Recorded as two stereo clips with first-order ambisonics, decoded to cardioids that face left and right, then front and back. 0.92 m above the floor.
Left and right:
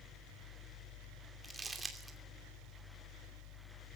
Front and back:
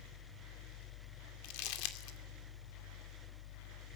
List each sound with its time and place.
1.4 s crumpling: 10° right, 2.5 m